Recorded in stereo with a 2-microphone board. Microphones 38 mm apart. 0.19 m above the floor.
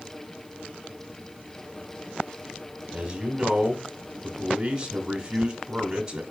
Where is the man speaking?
15° right (ahead or behind), 1.1 m.